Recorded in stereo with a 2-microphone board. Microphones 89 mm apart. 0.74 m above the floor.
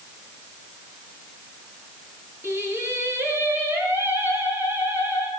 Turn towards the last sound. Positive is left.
turn(degrees=-25)  # may be behind; listen again after turning